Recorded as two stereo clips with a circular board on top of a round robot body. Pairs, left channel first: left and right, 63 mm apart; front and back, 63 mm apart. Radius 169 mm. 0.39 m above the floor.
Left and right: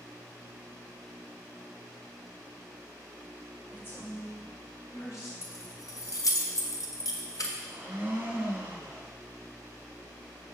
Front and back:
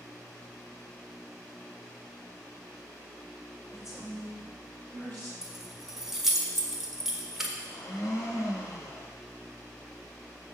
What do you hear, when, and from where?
3.7 s a woman speaking: 35° left, 3.5 m; by 5.3 s 50° left, 3.5 m
5.4 s keys jangling: 95° left, 1.5 m
7.6 s a blender: 30° right, 2.5 m